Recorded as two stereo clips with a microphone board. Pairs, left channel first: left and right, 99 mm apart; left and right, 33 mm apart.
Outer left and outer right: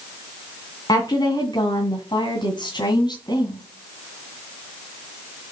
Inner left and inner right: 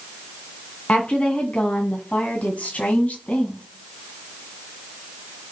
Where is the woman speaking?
40° left (ahead or behind), 2.5 m.